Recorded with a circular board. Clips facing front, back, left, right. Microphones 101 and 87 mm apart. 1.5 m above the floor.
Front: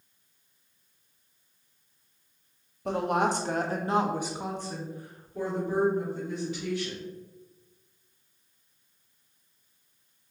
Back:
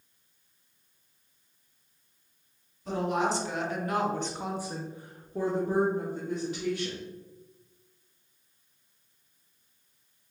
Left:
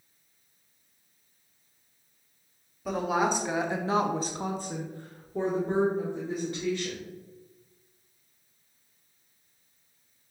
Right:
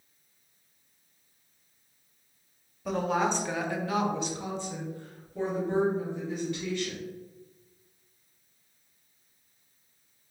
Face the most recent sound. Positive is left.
turn(degrees=145)